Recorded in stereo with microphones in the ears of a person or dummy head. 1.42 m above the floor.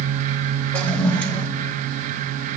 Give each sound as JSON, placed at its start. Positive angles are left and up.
{"t": 0.7, "sound": "a toilet flushing", "side_deg": 10, "distance_m": 1.0}